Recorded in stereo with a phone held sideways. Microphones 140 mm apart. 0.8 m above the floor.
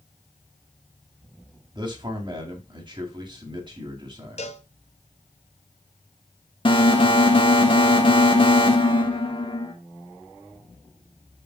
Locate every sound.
1.8 s a man speaking: 35° right (ahead or behind), 2 m
4.4 s a cowbell: 50° left (ahead or behind), 0.9 m
6.7 s an alarm: 40° left (ahead or behind), 1.5 m